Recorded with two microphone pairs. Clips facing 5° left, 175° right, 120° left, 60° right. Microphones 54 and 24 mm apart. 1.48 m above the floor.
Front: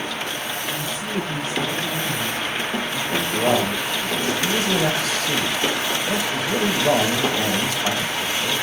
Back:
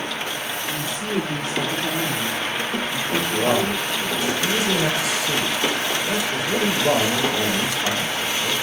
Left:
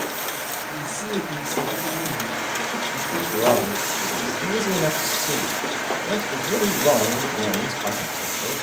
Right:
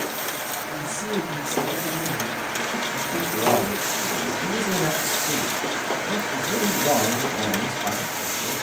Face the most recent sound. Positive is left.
turn(degrees=110)